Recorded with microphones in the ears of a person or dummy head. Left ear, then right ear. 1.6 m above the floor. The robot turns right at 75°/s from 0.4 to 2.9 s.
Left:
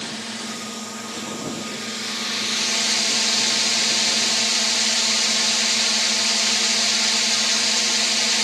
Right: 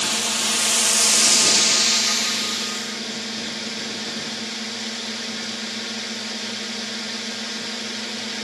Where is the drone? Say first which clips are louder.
Right 8 dB; 145° right; by 8.4 s 40° left.